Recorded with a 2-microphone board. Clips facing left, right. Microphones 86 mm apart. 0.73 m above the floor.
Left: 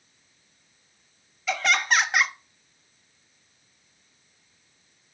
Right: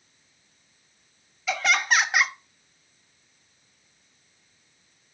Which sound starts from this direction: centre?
Laughter, at 1.5 s.